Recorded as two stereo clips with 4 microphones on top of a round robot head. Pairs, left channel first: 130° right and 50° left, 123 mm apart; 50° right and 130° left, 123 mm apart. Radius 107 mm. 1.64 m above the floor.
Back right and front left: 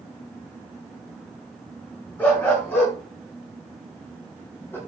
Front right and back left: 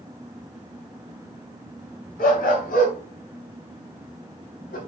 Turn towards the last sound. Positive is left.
turn(degrees=-55)